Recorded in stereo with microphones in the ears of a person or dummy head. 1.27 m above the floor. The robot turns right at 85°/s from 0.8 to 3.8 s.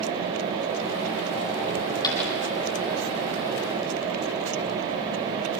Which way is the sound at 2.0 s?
20° left (ahead or behind).